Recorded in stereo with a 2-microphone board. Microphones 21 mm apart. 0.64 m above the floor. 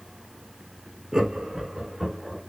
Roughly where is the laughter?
Right.